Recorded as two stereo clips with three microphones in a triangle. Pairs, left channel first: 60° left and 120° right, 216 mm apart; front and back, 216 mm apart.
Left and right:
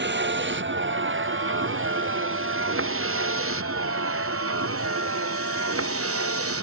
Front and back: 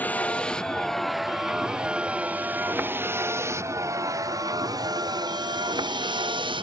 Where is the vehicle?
85° right; by 6.6 s 110° right.